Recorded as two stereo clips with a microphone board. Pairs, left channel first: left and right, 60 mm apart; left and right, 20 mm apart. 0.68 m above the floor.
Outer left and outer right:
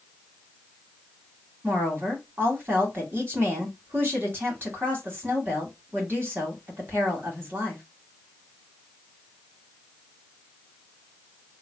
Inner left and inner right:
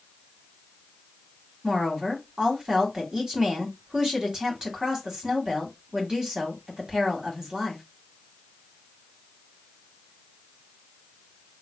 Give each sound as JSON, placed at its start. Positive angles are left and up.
{"t": 1.6, "sound": "a woman speaking", "side_deg": -35, "distance_m": 1.9}